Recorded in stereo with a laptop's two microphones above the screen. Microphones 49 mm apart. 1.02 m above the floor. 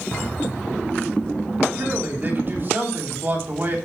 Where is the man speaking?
40° right (ahead or behind), 3 m.